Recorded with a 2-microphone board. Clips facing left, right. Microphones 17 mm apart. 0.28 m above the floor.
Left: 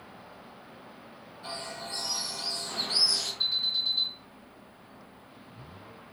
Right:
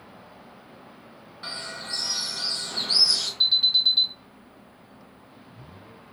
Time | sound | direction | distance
1.4 | a bird | 60° right (ahead or behind) | 2 m
3.4 | an alarm | 40° right (ahead or behind) | 1.7 m